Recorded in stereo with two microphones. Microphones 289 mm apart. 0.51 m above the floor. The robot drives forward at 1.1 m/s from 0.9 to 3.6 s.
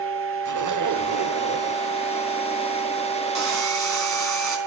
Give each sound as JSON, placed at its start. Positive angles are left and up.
{"t": 0.5, "sound": "a zipper", "side_deg": -75, "distance_m": 1.0}
{"t": 3.4, "sound": "sawing", "side_deg": -65, "distance_m": 4.0}